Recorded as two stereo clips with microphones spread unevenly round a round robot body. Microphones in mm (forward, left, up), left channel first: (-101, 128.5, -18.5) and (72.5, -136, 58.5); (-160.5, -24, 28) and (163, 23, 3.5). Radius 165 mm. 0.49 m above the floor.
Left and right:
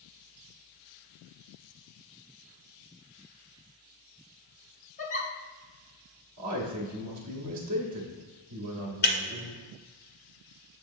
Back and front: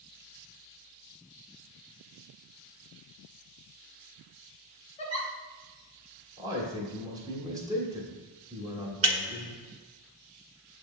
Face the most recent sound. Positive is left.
turn(degrees=60)